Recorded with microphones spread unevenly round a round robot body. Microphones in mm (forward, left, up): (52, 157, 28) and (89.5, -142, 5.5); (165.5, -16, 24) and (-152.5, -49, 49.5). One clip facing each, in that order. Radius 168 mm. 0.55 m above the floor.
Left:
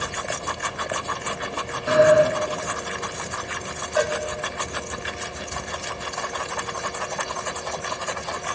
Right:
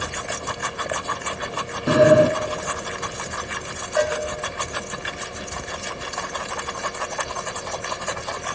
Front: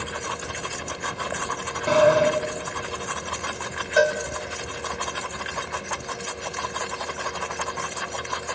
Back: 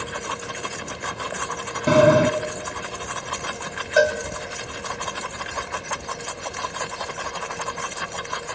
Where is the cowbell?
175° right, 1.9 m.